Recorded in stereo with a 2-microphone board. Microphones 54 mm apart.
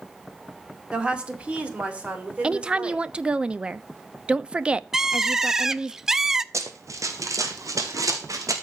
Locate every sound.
0.9 s a woman speaking: 20° right (ahead or behind), 1.8 m; by 3.0 s 25° right (ahead or behind), 3.5 m
2.4 s a woman speaking: 20° right (ahead or behind), 0.6 m
4.9 s a bird: 10° right (ahead or behind), 0.5 m
6.5 s running footsteps: 60° right (ahead or behind), 1.7 m; by 8.5 s 75° right (ahead or behind), 2.5 m